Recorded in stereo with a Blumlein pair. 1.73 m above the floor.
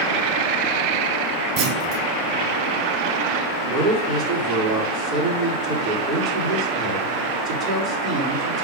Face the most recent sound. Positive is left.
turn(degrees=-25)